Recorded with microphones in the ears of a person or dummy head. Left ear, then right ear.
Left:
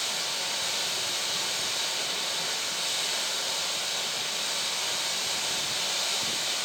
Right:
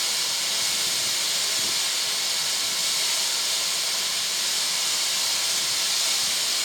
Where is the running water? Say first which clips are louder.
Right 4 dB; 15° left (ahead or behind), 3 m.